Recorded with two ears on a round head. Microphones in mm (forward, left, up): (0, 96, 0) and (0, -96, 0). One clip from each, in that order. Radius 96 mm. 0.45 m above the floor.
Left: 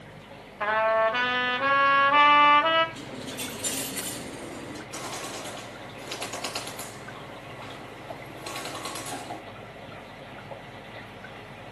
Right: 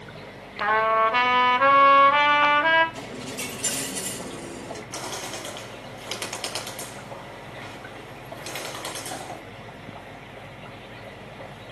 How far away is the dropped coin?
About 5.5 m.